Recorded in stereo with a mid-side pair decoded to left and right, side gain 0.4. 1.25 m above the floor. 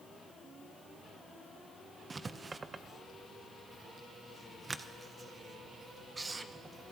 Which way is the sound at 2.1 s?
35° right.